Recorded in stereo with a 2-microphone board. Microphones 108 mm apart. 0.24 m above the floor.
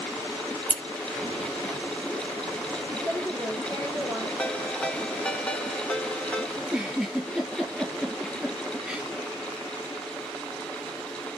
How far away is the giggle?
About 6.5 m.